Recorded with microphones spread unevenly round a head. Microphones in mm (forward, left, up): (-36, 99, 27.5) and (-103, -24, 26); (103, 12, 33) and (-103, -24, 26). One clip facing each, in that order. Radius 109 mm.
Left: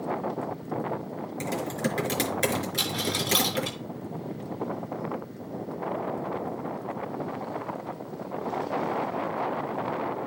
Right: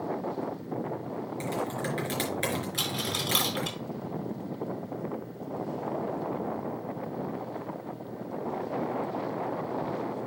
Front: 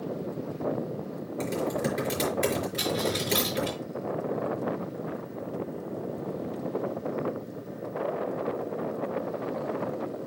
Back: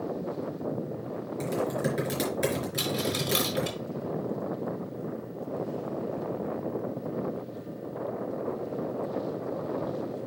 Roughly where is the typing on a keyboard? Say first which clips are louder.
Left 4 dB, front 1 dB; left.